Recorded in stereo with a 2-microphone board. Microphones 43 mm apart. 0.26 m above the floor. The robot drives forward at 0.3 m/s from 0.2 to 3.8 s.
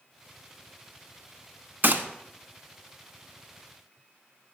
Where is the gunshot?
50° right (ahead or behind), 0.7 m; by 2.0 s 55° right (ahead or behind), 0.7 m.